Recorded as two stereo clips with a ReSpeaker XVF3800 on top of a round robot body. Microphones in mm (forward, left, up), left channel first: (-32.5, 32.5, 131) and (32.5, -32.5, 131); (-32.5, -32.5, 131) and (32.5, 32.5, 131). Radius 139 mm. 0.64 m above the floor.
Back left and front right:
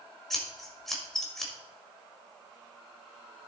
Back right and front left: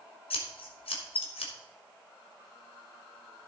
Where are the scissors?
140° right, 1.9 m.